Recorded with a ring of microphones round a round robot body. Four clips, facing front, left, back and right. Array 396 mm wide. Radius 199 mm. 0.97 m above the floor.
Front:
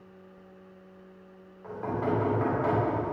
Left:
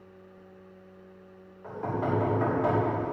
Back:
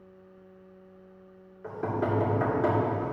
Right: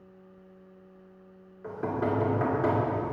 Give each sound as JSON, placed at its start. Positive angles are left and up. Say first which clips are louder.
{"t": 1.6, "sound": "knocking", "louder": "right 1 dB, back 1 dB", "azimuth_deg": -135, "distance_m": 2.5}